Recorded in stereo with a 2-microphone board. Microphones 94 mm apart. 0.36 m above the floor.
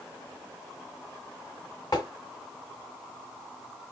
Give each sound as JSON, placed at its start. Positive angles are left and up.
{"t": 1.9, "sound": "tapping", "side_deg": 40, "distance_m": 1.8}